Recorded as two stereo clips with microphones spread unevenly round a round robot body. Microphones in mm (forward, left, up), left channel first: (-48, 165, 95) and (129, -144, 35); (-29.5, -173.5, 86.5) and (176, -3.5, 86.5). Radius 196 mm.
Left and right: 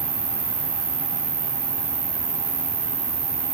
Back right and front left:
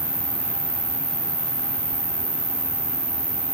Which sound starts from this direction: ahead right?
An insect, at 0.0 s.